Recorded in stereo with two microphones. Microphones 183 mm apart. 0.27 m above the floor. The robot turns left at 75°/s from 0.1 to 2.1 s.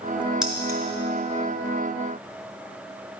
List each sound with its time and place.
0.4 s keys jangling: 5° right (ahead or behind), 1.0 m; by 0.8 s 20° right (ahead or behind), 1.0 m